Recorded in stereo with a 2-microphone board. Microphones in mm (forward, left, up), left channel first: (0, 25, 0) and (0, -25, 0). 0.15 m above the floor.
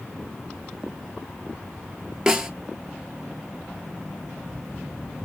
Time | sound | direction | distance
2.3 | a snare drum | 10° right (ahead or behind) | 0.7 m